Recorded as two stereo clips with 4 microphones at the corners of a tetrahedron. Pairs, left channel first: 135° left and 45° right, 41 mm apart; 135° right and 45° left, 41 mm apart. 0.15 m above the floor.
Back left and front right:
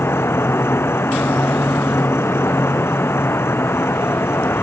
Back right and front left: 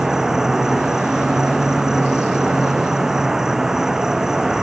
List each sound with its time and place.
0.0 s an insect: 120° left